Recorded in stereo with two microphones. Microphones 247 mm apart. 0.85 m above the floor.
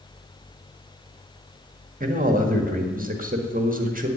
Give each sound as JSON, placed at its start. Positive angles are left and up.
{"t": 2.0, "sound": "a man speaking", "side_deg": -35, "distance_m": 1.8}